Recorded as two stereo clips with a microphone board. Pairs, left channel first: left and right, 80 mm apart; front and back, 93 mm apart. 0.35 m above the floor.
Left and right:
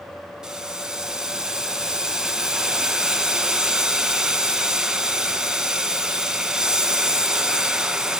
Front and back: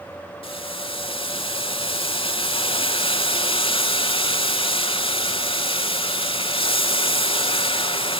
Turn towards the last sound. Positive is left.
turn(degrees=-10)